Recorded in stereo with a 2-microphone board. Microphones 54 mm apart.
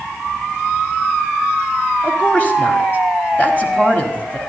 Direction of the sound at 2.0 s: 30° left (ahead or behind).